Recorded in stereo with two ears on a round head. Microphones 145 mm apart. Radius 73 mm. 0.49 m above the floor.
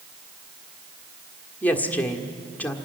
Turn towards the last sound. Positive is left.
turn(degrees=10)  # may be behind; listen again after turning